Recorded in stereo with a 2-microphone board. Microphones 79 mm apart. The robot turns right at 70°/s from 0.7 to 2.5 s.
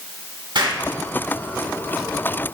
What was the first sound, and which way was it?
An explosion, 90° right.